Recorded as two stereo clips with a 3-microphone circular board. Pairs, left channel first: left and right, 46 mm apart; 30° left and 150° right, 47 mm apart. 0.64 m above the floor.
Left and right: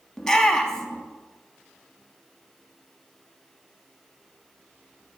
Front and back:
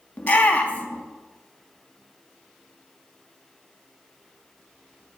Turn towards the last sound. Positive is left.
turn(degrees=20)